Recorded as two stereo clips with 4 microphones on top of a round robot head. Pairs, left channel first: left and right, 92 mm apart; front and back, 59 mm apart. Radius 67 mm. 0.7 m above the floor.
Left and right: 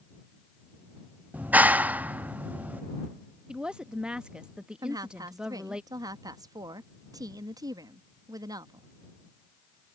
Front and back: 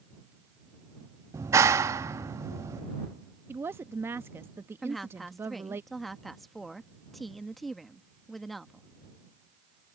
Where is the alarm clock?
No alarm clock in this recording.